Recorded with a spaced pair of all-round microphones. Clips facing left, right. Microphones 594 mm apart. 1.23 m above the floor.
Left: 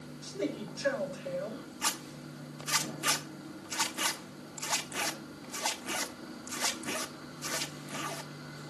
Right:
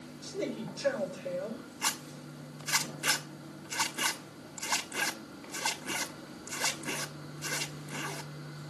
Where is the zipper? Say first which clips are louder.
Left 1 dB; 5° left (ahead or behind), 1.1 m.